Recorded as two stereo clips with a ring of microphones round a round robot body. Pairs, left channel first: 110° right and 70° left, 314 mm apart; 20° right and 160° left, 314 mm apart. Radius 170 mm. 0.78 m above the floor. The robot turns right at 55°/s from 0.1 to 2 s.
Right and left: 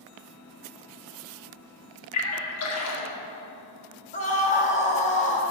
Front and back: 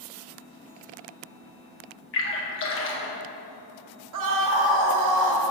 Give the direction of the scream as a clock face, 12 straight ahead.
6 o'clock.